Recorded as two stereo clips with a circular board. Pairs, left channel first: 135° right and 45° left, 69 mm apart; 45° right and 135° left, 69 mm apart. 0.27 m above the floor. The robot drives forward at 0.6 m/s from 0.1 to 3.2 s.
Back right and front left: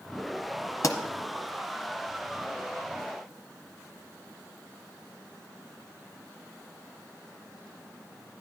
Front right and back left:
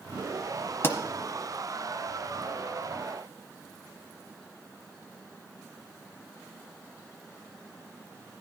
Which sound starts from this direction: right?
A pop, at 0.8 s.